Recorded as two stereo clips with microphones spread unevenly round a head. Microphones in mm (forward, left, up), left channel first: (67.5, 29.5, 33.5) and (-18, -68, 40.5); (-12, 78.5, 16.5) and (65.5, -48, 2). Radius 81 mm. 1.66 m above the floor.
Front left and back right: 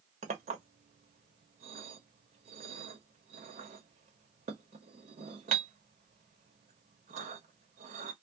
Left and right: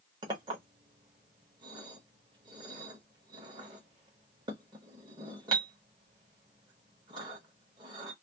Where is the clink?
120° right, 1.2 m.